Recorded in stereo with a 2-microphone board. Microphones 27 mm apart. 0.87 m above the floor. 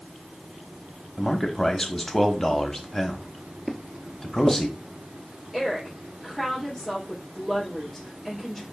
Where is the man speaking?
15° left (ahead or behind), 0.8 m.